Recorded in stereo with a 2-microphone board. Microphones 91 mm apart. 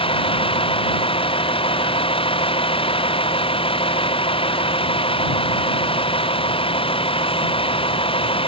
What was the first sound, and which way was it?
A vehicle, 85° left.